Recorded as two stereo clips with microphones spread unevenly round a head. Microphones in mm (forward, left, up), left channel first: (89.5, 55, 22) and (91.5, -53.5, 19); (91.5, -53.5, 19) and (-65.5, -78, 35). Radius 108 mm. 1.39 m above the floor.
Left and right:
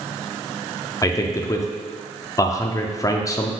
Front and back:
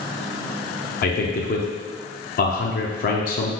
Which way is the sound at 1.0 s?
30° left.